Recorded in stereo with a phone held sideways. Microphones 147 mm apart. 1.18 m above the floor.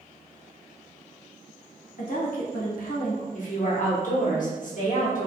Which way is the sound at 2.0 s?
70° left (ahead or behind).